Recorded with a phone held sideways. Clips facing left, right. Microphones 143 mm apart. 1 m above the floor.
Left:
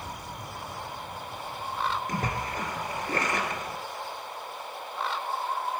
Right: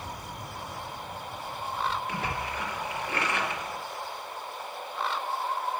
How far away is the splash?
About 2.5 m.